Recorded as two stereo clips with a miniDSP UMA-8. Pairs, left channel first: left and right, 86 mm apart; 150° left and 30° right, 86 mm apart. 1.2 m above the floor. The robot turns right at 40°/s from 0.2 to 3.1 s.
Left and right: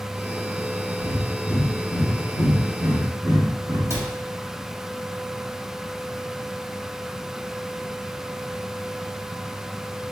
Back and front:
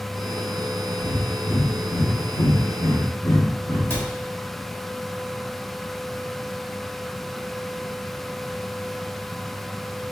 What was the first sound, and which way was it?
Breathing, 120° left.